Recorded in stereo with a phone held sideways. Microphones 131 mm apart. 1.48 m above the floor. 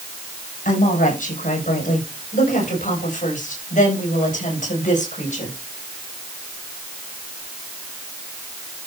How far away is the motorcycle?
I don't hear a motorcycle.